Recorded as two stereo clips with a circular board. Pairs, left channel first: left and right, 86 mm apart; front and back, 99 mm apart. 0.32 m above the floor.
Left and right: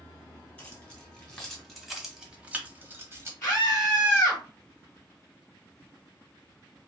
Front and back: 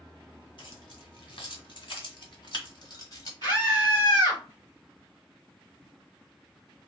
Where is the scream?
40° left, 2 m.